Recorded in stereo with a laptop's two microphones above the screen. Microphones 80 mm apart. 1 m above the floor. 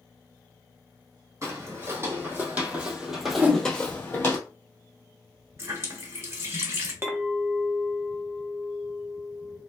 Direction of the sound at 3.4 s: 20° right (ahead or behind).